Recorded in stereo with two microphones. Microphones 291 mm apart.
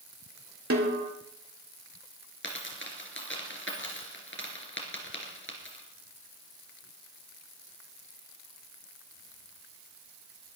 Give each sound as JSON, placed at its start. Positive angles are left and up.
{"t": 0.7, "sound": "a snare drum", "side_deg": -55, "distance_m": 2.0}
{"t": 2.4, "sound": "a dropped coin", "side_deg": 45, "distance_m": 3.0}